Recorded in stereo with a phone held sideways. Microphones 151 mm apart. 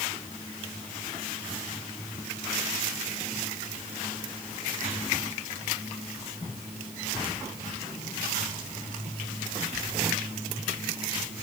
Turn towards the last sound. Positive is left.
No sound to turn to.